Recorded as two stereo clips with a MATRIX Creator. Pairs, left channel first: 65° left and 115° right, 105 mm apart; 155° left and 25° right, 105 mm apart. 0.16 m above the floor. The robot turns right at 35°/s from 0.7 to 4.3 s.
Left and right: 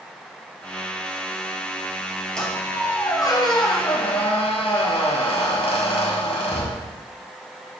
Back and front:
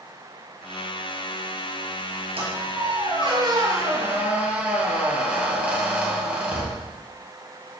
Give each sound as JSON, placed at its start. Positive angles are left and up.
{"t": 2.4, "sound": "a squeak", "azimuth_deg": -15, "distance_m": 1.8}